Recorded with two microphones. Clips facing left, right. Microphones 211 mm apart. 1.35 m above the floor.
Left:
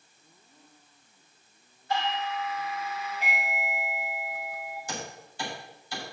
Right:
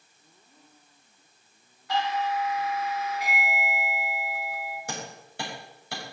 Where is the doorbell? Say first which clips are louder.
Right 3 dB; 70° right (ahead or behind), 4 m.